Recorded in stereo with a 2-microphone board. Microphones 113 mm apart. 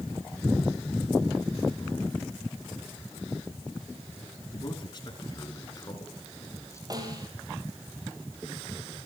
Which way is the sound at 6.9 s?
35° right (ahead or behind).